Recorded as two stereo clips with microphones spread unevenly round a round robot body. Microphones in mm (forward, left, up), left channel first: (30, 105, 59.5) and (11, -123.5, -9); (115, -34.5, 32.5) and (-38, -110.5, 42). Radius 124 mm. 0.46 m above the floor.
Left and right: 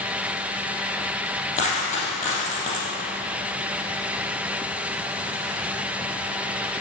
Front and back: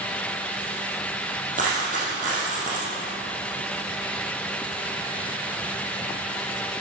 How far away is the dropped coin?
About 5 m.